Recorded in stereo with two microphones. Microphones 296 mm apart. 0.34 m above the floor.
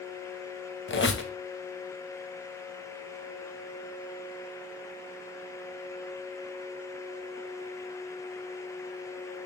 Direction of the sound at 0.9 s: 40° left (ahead or behind).